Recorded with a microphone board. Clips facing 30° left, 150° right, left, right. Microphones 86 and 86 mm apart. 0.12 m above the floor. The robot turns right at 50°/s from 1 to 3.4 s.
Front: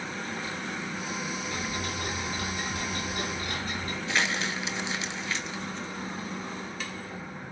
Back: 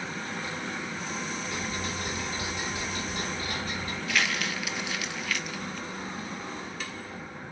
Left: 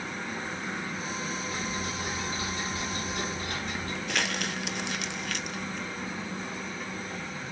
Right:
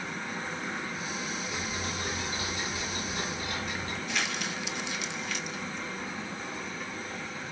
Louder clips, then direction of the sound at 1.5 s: Even, left 1 dB; 15° right.